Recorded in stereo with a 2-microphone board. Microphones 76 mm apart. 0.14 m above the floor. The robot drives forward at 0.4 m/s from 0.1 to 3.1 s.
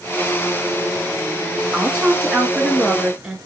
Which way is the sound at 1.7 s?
15° right (ahead or behind).